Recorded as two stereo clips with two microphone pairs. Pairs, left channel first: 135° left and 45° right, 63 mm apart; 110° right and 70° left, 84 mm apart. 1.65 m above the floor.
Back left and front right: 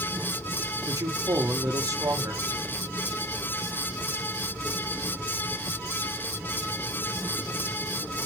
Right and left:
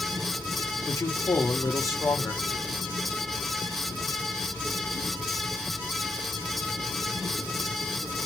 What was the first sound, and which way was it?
A man speaking, 55° right.